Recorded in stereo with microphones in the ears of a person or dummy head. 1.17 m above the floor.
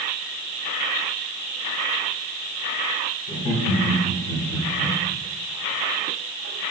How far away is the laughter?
About 3.5 m.